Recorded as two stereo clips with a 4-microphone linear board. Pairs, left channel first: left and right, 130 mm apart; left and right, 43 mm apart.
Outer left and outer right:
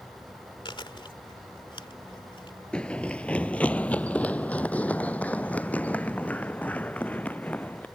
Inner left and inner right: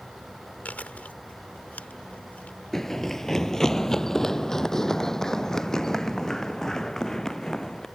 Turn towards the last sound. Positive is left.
turn(degrees=10)  # may be behind; listen again after turning